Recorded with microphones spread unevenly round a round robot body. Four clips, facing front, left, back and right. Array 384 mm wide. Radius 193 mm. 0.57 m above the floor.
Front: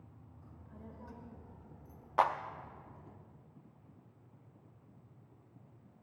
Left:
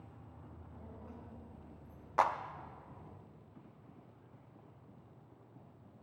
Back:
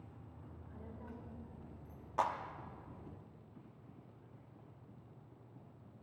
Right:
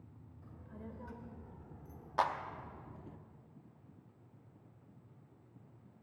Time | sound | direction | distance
0.4 | a child speaking | 90° right | 2 m
2.2 | a clap | 40° left | 0.6 m